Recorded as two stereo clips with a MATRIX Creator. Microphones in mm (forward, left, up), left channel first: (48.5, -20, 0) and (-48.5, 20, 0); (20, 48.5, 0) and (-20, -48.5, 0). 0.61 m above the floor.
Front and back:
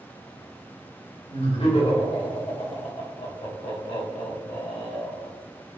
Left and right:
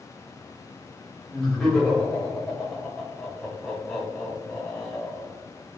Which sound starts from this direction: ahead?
Laughter, at 1.3 s.